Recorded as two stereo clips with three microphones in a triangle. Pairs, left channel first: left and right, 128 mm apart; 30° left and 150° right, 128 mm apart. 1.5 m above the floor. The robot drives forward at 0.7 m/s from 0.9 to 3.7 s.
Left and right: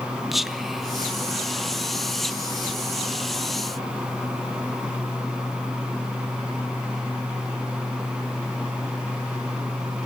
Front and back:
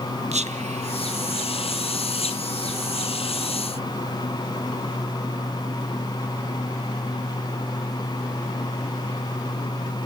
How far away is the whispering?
About 1.5 m.